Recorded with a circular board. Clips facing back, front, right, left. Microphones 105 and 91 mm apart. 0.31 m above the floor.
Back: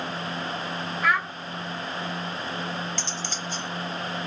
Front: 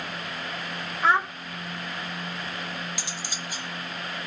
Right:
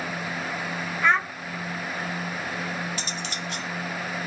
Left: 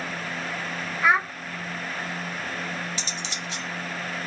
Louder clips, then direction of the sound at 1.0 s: Front 3 dB, left 1 dB; 20° left.